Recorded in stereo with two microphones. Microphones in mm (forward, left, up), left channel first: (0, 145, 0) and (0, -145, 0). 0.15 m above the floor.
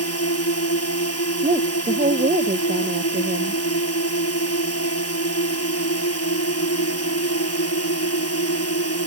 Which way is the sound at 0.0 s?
55° left (ahead or behind).